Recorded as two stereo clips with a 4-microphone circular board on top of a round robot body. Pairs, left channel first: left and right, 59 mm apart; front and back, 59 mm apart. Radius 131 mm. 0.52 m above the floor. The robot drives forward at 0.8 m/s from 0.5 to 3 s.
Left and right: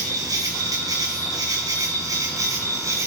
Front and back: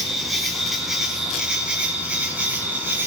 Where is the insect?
90° right, 3 m; by 3.1 s 125° right, 3.5 m.